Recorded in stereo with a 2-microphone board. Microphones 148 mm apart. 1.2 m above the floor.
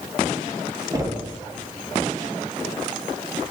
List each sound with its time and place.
0.9 s knocking: 20° right (ahead or behind), 1.1 m